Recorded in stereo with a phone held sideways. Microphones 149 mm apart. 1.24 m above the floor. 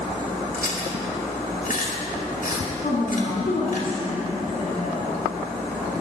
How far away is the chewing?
About 2.5 m.